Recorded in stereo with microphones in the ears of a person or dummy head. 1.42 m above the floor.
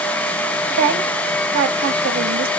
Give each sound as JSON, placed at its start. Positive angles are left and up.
{"t": 0.7, "sound": "a woman speaking", "side_deg": -50, "distance_m": 1.1}